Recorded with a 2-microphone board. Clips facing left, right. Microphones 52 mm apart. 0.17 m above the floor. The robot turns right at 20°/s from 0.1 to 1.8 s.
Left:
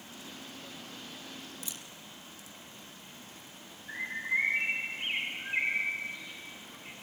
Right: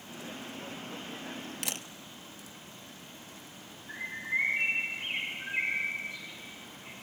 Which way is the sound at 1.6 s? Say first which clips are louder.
Right 7 dB; 70° right (ahead or behind).